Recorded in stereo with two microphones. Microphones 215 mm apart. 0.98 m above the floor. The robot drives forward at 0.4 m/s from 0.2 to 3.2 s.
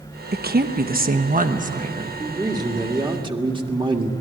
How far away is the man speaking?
About 2 m.